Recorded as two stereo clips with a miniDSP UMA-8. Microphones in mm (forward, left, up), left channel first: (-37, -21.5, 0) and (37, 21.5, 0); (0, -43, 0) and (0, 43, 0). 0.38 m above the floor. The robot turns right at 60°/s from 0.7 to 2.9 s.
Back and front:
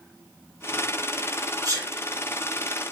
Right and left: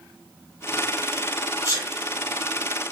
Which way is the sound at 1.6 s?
50° left.